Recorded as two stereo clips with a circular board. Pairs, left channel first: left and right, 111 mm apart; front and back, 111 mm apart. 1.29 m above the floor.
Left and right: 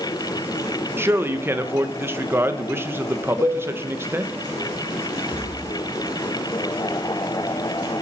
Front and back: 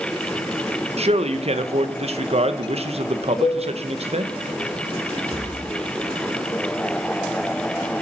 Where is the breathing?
100° left, 4 m.